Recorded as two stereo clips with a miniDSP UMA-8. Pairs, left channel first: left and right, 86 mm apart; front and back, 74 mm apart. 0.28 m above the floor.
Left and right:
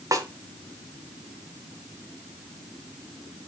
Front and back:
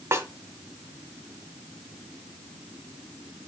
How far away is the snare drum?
About 1.6 m.